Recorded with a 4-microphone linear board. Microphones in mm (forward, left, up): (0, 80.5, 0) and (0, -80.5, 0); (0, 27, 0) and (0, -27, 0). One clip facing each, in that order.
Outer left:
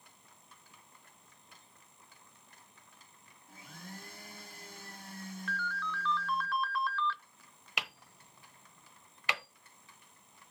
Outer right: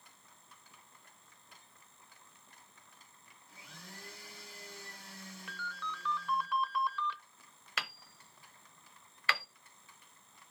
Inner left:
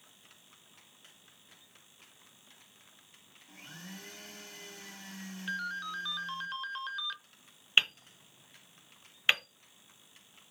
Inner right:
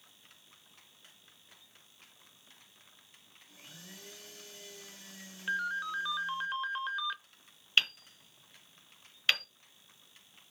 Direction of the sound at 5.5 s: 15° right (ahead or behind).